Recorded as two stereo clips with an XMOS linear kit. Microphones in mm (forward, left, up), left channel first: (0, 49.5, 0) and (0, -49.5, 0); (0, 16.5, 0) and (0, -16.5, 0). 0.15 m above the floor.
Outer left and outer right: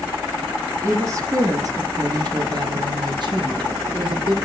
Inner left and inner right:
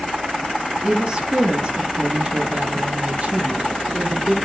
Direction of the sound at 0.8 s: 25° right (ahead or behind).